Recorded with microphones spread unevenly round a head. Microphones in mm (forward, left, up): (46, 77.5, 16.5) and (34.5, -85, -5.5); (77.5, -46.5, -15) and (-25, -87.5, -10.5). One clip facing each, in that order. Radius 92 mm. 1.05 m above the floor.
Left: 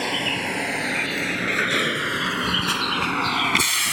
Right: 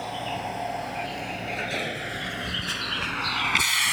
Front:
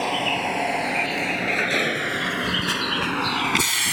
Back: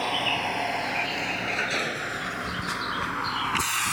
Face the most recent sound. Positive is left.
turn(degrees=50)